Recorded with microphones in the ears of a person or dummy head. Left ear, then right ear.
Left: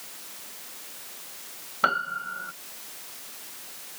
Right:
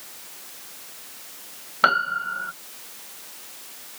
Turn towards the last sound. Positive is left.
turn(degrees=-15)  # may be behind; listen again after turning